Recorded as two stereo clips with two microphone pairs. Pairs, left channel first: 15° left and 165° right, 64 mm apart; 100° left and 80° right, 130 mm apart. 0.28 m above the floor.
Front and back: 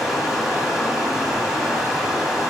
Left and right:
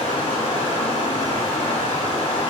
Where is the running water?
115° left, 1.5 m.